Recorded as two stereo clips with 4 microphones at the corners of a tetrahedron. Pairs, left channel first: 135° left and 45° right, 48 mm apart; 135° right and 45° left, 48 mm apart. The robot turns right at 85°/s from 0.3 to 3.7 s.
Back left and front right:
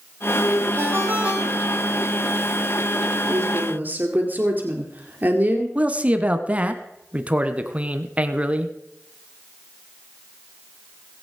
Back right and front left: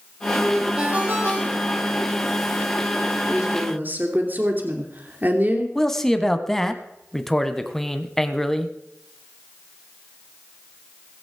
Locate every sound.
0.8 s a ringtone: 30° right, 3.5 m; by 1.9 s 65° left, 3.5 m
3.3 s a woman speaking: 35° right, 2.5 m; by 5.7 s straight ahead, 2.5 m
5.8 s a man speaking: 60° right, 1.2 m